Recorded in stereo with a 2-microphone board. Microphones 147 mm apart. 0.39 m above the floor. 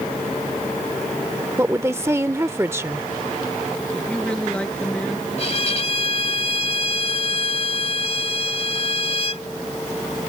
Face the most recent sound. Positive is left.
turn(degrees=45)  # may be behind; listen again after turning